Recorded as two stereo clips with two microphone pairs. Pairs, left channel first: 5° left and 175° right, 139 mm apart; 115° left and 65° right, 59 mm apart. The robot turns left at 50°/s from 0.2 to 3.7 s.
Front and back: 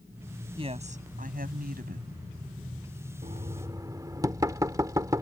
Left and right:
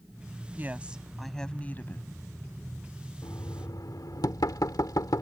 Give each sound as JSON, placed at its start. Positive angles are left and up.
{"t": 0.6, "sound": "a woman speaking", "azimuth_deg": -120}
{"t": 3.2, "sound": "knocking", "azimuth_deg": 145}